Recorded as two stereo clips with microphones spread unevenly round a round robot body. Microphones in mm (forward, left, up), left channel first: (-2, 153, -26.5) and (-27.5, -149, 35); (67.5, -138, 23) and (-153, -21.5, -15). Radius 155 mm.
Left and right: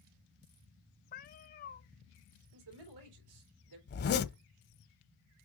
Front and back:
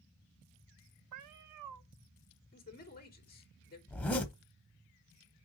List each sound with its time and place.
1.1 s a cat meowing: 150° left, 0.8 m
2.5 s a man speaking: 80° right, 3.5 m
3.9 s a zipper: 35° left, 0.8 m